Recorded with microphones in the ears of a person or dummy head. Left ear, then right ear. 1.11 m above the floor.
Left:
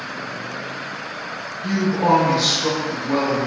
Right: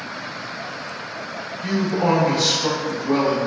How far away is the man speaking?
About 1.0 m.